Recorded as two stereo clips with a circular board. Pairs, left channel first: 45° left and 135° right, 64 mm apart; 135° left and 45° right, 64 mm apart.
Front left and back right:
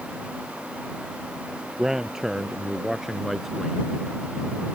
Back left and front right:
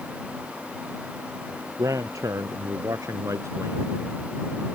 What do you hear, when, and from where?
1.8 s a man speaking: 55° right; by 3.8 s 45° right